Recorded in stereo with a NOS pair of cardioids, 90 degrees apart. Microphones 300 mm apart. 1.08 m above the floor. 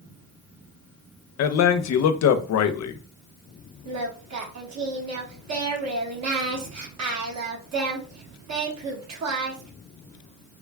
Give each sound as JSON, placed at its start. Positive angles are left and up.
{"t": 1.4, "sound": "a man speaking", "azimuth_deg": 60, "distance_m": 0.7}
{"t": 3.9, "sound": "singing", "azimuth_deg": -60, "distance_m": 1.5}